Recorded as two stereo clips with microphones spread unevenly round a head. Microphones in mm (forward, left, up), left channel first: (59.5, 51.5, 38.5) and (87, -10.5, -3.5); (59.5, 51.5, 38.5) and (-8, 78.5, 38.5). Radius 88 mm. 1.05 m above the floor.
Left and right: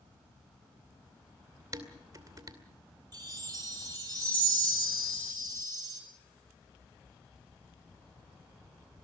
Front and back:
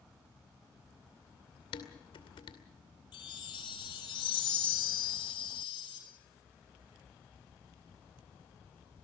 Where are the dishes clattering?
25° right, 2.5 m.